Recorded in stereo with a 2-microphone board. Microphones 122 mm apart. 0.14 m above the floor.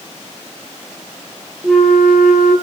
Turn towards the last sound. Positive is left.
turn(degrees=-5)  # may be behind; listen again after turning